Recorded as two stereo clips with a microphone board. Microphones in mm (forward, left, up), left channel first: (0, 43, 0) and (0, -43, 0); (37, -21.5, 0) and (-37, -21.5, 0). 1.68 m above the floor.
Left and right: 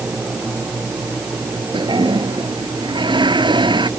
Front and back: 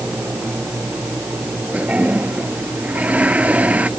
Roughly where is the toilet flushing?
Right.